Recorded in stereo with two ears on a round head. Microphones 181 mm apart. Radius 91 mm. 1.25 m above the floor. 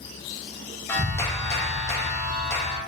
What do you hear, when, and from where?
0.9 s a clap: 15° left (ahead or behind), 0.8 m